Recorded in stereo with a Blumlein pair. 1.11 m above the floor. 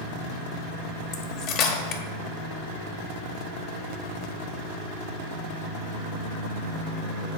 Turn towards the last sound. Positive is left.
turn(degrees=35)